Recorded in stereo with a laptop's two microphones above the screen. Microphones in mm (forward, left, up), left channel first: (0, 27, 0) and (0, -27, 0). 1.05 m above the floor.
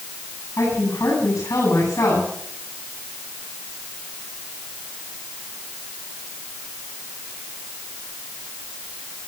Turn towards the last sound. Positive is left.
turn(degrees=80)